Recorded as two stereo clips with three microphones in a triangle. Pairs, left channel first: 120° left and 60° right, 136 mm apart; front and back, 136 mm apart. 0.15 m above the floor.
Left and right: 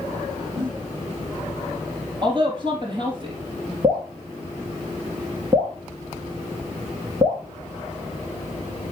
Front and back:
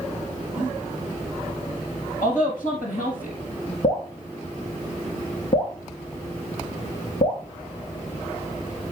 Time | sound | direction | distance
0.6 | a giggle | 15° right | 4.5 m
2.2 | a woman speaking | 5° right | 4 m
3.8 | dripping | 10° right | 3 m